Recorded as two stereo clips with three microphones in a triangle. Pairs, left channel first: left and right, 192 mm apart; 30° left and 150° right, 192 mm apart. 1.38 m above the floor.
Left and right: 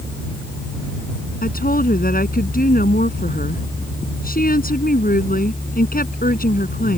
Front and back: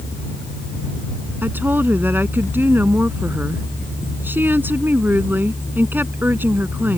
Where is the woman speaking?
130° left.